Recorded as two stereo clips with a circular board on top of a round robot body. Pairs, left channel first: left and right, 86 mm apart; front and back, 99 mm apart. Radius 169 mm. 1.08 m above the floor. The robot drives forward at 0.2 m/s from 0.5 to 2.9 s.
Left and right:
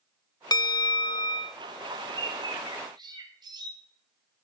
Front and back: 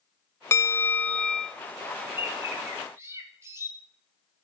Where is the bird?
110° right, 1.4 m; by 3.7 s 120° right, 1.4 m.